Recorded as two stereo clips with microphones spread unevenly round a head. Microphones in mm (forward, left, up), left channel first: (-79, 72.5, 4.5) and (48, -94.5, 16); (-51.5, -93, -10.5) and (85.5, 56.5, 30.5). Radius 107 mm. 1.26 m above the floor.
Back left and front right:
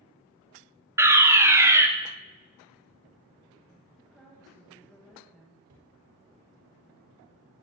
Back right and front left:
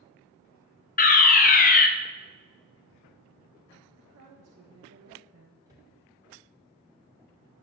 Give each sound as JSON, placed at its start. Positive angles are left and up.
{"t": 1.0, "sound": "a fire alarm", "azimuth_deg": -130, "distance_m": 1.2}
{"t": 4.0, "sound": "a woman speaking", "azimuth_deg": 40, "distance_m": 1.7}
{"t": 5.7, "sound": "a cupboard door", "azimuth_deg": -30, "distance_m": 3.0}